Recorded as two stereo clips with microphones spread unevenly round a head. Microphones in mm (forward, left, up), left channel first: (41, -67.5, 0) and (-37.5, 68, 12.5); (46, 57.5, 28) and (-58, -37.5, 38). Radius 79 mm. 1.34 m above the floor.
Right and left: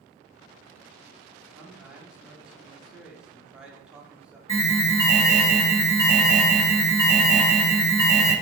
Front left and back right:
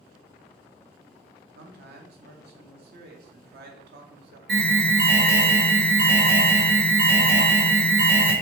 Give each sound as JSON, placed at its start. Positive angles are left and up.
{"t": 1.6, "sound": "a man speaking", "azimuth_deg": -155, "distance_m": 0.8}
{"t": 4.5, "sound": "an alarm", "azimuth_deg": -135, "distance_m": 1.5}